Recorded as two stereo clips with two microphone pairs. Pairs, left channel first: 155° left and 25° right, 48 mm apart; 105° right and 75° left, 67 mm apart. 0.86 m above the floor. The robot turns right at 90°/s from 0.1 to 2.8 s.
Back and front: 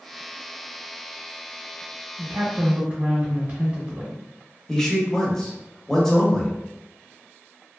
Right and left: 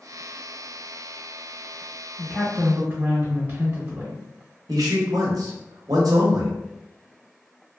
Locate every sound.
2.2 s a woman speaking: 35° right, 0.8 m; by 4.2 s 20° left, 0.8 m
4.7 s a man speaking: 75° left, 0.8 m